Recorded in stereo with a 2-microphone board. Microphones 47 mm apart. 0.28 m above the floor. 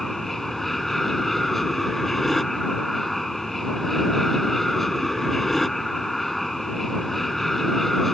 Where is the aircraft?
5° left (ahead or behind).